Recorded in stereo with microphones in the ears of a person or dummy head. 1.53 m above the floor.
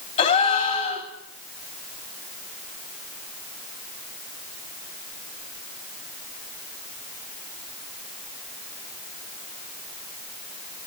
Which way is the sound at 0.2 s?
35° left (ahead or behind).